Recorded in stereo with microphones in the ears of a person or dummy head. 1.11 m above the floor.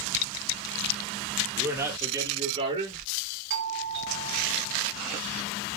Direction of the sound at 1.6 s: 10° right (ahead or behind).